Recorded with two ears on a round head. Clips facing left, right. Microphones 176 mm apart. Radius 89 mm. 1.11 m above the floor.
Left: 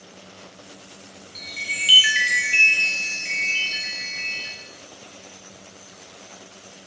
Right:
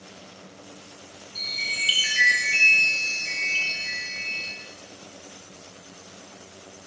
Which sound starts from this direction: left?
A chime, at 1.4 s.